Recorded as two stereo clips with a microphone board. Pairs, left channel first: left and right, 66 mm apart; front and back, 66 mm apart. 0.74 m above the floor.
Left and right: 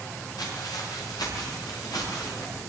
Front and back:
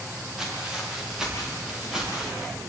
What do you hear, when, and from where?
0.4 s footsteps: 100° left, 9 m